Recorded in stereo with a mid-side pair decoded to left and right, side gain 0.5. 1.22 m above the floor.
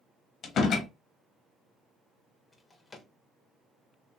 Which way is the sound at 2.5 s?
30° left.